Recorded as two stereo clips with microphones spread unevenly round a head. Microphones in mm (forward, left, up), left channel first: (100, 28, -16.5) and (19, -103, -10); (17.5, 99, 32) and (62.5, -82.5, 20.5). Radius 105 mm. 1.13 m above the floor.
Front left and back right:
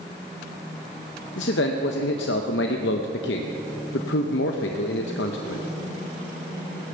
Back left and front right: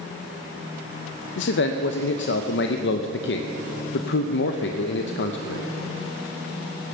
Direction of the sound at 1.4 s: 80° left.